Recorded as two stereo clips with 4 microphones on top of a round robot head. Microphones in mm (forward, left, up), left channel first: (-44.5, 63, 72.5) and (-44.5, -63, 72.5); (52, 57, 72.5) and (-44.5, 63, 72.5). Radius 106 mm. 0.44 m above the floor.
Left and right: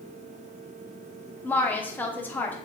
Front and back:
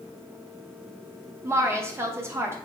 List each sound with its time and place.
1.4 s a woman speaking: 150° left, 0.8 m